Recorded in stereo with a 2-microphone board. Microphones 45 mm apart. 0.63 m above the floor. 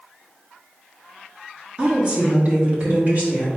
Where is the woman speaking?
25° right (ahead or behind), 1.2 m; by 3.5 s 40° right (ahead or behind), 1.6 m.